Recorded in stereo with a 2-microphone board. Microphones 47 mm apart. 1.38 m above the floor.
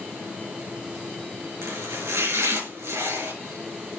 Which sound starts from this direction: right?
Chopping, at 1.6 s.